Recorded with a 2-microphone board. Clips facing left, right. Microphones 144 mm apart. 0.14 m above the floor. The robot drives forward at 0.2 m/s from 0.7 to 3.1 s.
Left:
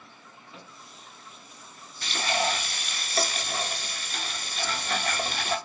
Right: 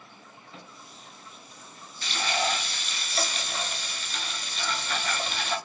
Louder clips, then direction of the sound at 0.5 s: Right 1 dB; 10° left (ahead or behind).